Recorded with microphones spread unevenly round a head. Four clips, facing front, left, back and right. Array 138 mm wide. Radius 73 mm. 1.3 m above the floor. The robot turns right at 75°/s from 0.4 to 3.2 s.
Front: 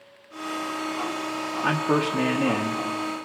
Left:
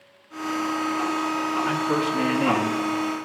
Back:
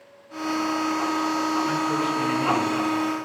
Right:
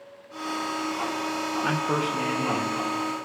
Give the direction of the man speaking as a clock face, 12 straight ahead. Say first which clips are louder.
Even, front 1 dB; 1 o'clock.